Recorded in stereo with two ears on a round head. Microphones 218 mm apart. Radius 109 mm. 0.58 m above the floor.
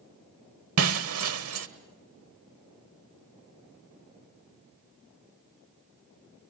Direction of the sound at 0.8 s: 60° right (ahead or behind).